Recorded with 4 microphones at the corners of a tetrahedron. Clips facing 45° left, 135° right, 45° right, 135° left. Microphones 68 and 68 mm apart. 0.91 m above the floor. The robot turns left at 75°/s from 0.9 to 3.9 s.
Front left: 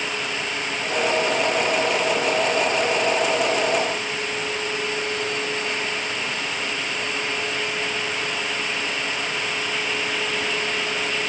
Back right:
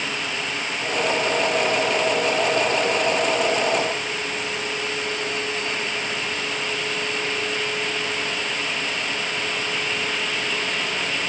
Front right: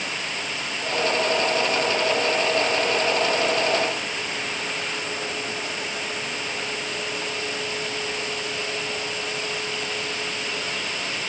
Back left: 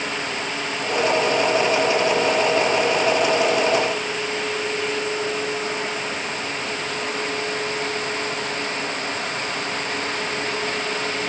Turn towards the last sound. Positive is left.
No sound to turn to.